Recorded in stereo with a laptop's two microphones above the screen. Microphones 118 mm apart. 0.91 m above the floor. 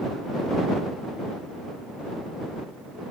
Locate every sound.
Only background noise.